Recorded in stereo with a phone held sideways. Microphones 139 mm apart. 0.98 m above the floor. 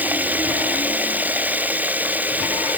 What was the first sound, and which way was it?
Running water, 10° right (ahead or behind).